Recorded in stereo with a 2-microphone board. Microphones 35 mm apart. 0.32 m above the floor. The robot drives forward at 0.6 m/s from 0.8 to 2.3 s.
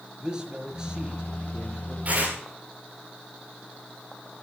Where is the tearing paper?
40° right (ahead or behind), 9.5 m.